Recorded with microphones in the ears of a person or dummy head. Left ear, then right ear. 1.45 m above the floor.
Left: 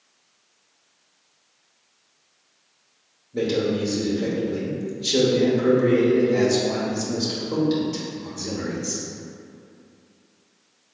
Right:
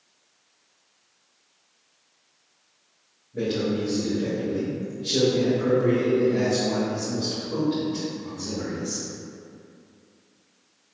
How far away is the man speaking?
About 0.9 m.